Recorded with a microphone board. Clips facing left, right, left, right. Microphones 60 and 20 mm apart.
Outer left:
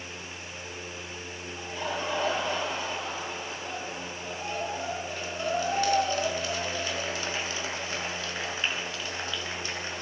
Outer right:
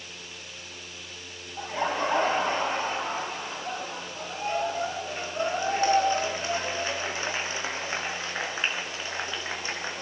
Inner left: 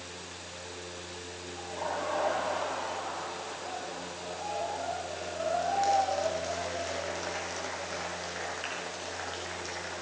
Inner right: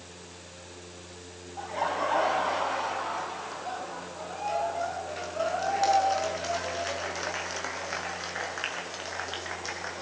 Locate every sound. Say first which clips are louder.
1.6 s laughter: outer right 6 dB, inner right 6 dB; 40° right (ahead or behind), 6 m; by 10.0 s 25° right (ahead or behind), 10 m